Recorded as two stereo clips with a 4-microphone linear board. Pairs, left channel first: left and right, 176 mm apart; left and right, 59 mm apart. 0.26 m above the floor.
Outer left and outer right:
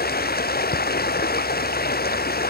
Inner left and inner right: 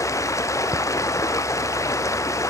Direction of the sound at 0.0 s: 60° left (ahead or behind).